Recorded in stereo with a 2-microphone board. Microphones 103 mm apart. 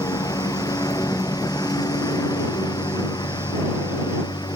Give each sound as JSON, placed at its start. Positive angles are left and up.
{"t": 0.0, "sound": "a lawn mower", "side_deg": 35}